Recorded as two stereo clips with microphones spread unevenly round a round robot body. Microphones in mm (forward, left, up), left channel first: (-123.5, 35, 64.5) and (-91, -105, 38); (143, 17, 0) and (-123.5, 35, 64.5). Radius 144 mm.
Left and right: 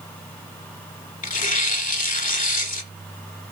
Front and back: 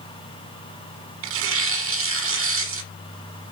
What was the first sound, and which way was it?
Tearing paper, 130° left.